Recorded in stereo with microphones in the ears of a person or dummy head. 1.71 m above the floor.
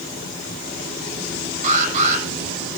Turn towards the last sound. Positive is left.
turn(degrees=-45)  # may be behind; listen again after turning